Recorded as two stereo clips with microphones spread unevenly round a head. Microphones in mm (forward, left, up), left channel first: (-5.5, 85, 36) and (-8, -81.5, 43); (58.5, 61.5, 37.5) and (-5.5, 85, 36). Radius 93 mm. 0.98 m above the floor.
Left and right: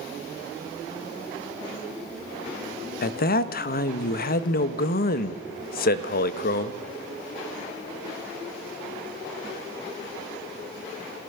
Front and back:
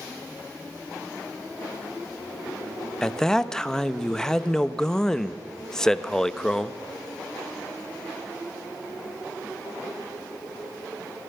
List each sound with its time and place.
3.0 s a man speaking: 60° left, 1.1 m